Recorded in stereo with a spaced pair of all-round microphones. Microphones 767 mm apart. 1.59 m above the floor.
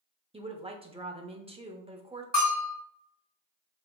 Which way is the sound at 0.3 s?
10° right (ahead or behind).